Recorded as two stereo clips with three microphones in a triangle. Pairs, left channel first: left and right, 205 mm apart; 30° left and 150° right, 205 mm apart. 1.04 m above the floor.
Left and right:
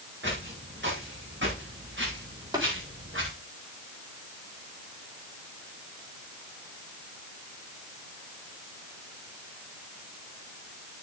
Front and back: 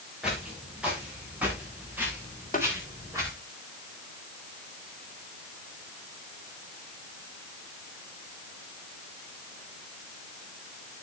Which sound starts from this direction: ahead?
Tapping, at 2.5 s.